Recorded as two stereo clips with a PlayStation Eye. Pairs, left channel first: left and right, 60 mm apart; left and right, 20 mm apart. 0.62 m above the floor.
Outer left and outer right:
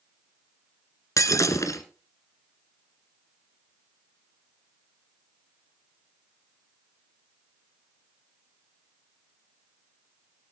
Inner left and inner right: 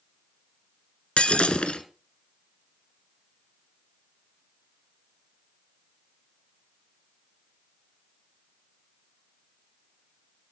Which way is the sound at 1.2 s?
70° left (ahead or behind).